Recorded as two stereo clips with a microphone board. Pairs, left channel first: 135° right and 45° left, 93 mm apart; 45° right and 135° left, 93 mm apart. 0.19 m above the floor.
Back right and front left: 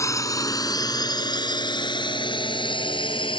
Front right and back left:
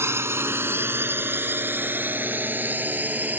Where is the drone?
175° right; by 3.4 s 155° right.